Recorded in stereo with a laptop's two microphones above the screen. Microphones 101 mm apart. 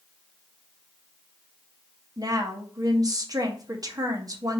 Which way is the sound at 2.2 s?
35° right (ahead or behind).